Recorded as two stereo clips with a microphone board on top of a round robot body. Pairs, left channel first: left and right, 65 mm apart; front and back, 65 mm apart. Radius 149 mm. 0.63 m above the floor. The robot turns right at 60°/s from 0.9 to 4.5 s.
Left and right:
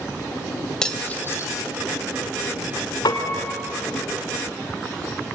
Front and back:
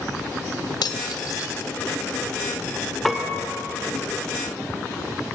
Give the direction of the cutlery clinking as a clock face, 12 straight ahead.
12 o'clock.